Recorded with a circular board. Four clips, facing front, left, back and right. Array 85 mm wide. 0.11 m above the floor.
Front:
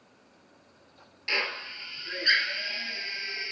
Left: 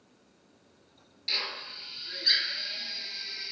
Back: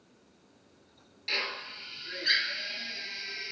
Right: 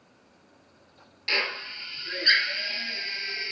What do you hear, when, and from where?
1.3 s a drill: 65° right, 1.3 m